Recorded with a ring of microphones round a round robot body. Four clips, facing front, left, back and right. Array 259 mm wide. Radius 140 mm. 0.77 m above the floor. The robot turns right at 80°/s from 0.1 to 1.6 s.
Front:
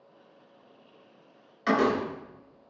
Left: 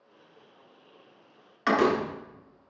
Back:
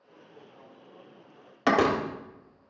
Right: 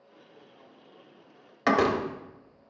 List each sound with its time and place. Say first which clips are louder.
1.7 s a door slam: even, back 1 dB; 150° right, 1.3 m